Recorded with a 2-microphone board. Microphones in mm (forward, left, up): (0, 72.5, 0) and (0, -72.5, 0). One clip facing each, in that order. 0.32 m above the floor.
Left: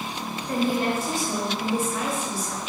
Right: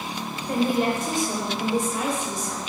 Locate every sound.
0.5 s a woman speaking: 20° right (ahead or behind), 0.9 m